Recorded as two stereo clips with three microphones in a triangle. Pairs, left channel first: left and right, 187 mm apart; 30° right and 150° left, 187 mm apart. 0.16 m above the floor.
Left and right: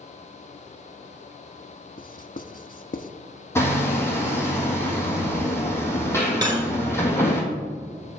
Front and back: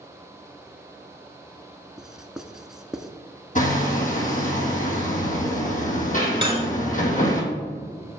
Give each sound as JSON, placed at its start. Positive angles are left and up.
{"t": 2.0, "sound": "writing", "azimuth_deg": 65, "distance_m": 0.6}
{"t": 3.5, "sound": "hammering", "azimuth_deg": 15, "distance_m": 1.8}
{"t": 6.4, "sound": "cutlery clinking", "azimuth_deg": -155, "distance_m": 1.6}